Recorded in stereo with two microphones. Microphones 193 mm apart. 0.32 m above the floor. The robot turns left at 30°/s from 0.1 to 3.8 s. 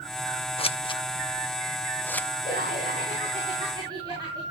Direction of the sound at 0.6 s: 30° left (ahead or behind).